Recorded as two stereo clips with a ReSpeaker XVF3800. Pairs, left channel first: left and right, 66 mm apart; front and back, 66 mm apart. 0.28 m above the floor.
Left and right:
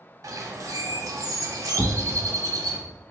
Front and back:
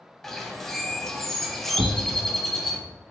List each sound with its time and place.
0.2 s a bird: 85° right, 0.5 m
1.8 s a thud: 150° right, 0.5 m